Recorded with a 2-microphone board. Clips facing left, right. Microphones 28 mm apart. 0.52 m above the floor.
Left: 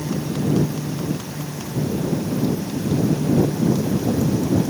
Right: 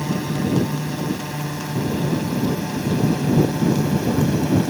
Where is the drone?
50° right (ahead or behind); by 4.7 s 45° right (ahead or behind).